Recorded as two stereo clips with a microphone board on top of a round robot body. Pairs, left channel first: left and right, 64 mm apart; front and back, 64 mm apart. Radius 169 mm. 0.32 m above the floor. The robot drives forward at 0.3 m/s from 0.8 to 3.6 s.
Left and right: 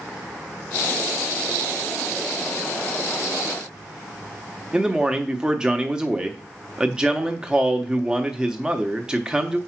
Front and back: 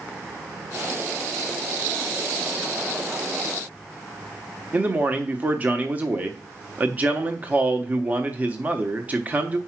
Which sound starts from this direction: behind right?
A man speaking, at 4.7 s.